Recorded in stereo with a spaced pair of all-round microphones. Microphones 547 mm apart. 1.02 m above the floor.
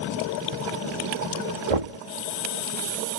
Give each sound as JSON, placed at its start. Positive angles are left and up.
{"t": 1.7, "sound": "knocking", "side_deg": -80}